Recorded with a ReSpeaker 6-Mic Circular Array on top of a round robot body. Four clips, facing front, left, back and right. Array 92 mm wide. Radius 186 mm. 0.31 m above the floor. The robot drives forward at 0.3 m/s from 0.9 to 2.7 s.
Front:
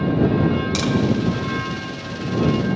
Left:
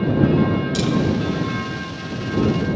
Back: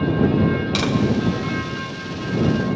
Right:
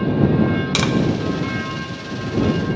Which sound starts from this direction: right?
Tapping, at 0.8 s.